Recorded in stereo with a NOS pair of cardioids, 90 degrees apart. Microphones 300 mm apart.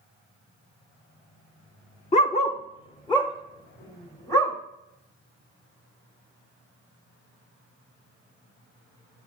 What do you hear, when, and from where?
2.1 s a dog barking: 25° left, 1.1 m; by 4.5 s 10° left, 2.5 m